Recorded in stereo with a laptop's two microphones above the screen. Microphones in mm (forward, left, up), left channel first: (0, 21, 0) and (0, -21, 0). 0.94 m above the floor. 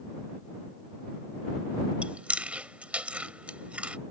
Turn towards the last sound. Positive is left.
turn(degrees=-30)  # may be behind; listen again after turning